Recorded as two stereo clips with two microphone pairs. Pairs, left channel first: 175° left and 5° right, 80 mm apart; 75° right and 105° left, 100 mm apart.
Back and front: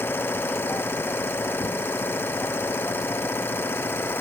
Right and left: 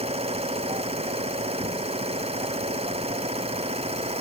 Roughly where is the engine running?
Left.